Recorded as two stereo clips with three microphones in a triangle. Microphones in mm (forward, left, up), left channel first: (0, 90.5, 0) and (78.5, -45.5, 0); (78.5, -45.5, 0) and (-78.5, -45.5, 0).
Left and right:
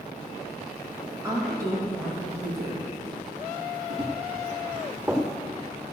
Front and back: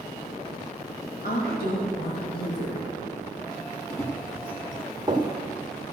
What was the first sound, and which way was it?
A woman speaking, 10° left.